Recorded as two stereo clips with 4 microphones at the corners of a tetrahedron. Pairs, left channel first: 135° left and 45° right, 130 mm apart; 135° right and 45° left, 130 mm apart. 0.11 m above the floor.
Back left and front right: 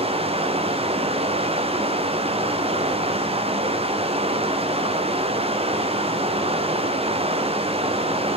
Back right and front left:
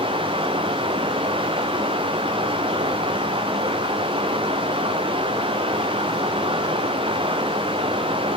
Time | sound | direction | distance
0.0 | running water | 5° right | 1.7 m